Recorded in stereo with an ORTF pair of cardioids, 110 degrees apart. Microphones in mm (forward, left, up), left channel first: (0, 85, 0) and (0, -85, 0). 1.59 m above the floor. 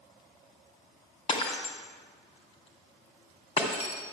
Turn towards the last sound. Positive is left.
turn(degrees=40)